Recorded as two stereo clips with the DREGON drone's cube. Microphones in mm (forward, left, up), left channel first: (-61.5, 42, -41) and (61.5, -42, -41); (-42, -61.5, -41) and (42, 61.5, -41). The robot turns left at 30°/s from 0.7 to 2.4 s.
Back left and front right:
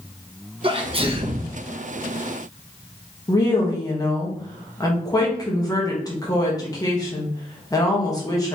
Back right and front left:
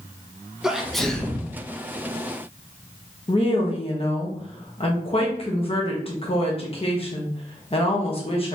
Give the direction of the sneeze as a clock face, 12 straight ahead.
1 o'clock.